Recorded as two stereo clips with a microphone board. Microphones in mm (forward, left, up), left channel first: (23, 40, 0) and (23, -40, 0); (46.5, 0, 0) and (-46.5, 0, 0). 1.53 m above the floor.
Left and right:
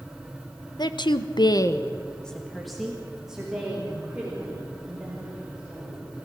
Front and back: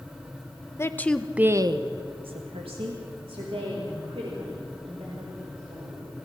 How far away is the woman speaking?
About 1.2 m.